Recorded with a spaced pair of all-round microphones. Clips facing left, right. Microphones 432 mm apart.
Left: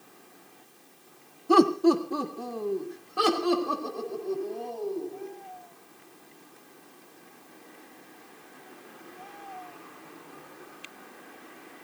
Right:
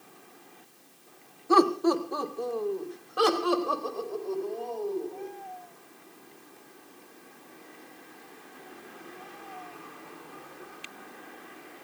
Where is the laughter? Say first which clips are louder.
Left 3 dB; 45° left (ahead or behind), 1.3 m; by 5.3 s 40° left (ahead or behind), 5.5 m.